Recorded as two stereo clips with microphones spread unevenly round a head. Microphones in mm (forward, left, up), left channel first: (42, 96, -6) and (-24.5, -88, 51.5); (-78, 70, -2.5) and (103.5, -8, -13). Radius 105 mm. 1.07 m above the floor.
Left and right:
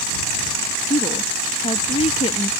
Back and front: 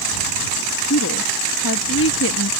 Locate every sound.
0.9 s a woman speaking: 135° left